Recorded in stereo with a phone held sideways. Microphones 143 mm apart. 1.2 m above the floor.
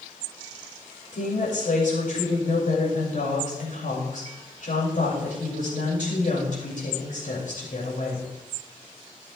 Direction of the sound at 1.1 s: 65° left (ahead or behind).